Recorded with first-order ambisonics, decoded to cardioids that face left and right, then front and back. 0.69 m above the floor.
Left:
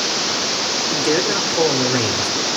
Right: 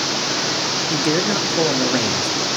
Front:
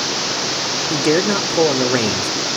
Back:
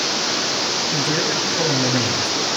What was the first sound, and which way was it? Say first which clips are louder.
A man speaking: left 1 dB, front 3 dB; 10° right.